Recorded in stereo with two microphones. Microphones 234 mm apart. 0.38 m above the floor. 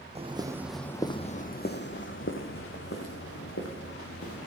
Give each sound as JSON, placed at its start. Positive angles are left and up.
{"t": 0.1, "sound": "footsteps", "side_deg": -30, "distance_m": 1.2}